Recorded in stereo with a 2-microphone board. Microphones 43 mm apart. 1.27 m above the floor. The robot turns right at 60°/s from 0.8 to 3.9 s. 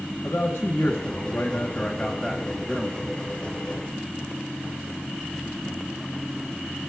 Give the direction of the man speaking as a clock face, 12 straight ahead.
9 o'clock.